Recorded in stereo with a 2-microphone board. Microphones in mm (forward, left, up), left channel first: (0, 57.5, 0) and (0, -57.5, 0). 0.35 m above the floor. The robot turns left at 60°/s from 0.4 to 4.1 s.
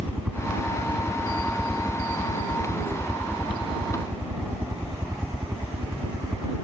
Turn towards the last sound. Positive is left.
turn(degrees=-30)